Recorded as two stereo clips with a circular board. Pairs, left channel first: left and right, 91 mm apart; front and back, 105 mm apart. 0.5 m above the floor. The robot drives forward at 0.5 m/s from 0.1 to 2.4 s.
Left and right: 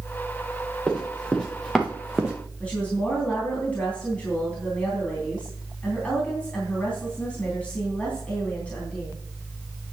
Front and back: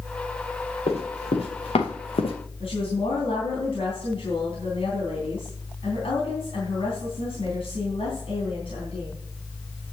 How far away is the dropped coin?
No dropped coin in this recording.